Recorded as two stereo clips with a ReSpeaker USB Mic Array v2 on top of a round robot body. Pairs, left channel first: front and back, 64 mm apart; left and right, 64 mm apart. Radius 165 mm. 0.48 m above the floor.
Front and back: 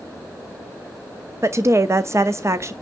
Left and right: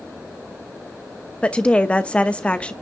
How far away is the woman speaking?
About 1.0 m.